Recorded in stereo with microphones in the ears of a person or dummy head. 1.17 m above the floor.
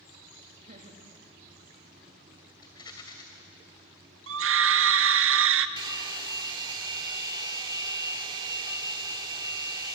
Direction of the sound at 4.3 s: 65° right (ahead or behind).